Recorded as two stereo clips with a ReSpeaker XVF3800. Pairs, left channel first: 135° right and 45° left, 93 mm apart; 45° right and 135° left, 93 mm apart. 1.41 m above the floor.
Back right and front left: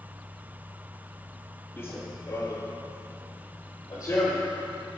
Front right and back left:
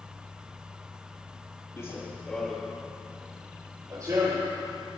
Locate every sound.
1.8 s running footsteps: 85° right, 1.8 m; by 5.0 s 170° left, 3.5 m